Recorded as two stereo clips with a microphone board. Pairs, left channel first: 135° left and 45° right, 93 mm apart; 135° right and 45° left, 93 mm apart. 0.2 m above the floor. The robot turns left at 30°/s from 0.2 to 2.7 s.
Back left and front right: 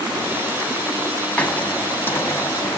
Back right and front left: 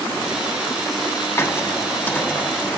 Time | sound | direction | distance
1.4 | a hiss | 165° right | 1.0 m